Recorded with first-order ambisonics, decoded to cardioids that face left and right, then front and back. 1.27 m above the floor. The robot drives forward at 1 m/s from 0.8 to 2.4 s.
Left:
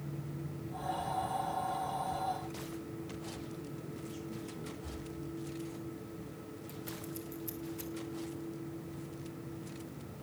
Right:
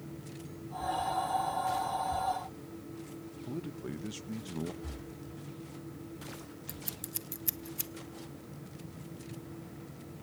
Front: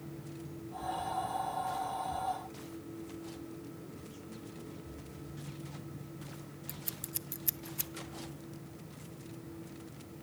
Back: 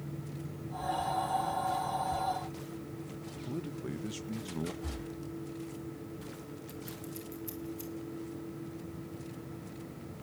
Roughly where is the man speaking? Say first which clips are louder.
Right 4 dB, back 8 dB; behind right.